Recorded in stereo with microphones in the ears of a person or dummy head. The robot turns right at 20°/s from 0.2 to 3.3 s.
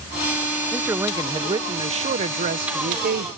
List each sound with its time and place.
0.7 s a man speaking: 170° right; by 3.3 s 120° right